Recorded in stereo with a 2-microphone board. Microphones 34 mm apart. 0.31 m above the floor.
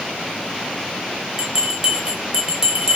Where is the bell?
20° right (ahead or behind), 0.6 m.